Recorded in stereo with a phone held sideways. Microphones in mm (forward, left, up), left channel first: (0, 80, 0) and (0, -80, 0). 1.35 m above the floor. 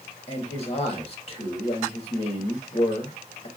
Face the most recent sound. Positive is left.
turn(degrees=40)  # may be behind; listen again after turning